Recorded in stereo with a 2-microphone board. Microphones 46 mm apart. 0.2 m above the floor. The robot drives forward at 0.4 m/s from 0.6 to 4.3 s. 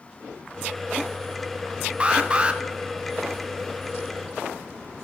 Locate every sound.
2.0 s an alarm: 25° right (ahead or behind), 0.7 m